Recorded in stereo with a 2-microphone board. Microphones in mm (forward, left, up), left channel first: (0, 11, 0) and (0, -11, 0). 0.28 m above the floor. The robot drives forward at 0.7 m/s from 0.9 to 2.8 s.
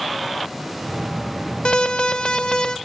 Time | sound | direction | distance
1.6 | an alarm | 50° left (ahead or behind) | 1.0 m